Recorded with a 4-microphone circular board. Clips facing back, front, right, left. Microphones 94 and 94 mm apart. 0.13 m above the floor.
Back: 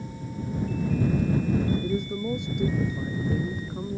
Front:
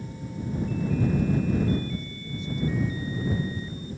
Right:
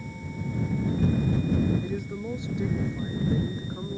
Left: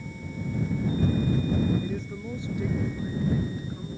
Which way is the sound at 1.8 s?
170° right.